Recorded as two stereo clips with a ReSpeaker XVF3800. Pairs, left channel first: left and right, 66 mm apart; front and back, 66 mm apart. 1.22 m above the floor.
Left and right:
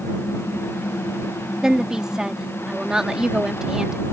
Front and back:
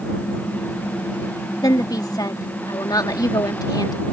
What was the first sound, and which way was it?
A woman speaking, 10° right.